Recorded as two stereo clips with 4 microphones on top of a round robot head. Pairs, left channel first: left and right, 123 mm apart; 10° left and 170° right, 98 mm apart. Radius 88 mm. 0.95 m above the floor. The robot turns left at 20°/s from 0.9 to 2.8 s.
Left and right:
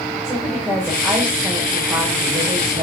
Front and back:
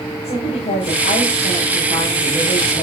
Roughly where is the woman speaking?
Ahead.